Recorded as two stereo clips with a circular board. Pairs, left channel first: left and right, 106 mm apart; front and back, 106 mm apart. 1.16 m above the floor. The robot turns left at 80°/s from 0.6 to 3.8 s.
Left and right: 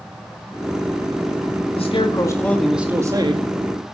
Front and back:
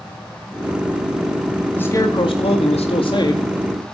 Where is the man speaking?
75° left, 2 m; by 3.4 s 60° right, 2 m.